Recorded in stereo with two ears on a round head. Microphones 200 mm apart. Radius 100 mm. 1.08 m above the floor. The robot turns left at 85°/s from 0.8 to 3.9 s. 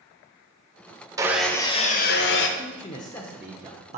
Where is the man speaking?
65° left, 0.6 m; by 4.0 s 45° right, 0.6 m.